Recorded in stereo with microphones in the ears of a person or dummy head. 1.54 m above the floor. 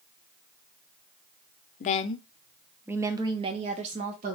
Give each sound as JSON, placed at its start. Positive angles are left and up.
{"t": 1.8, "sound": "a woman speaking", "side_deg": 45, "distance_m": 0.6}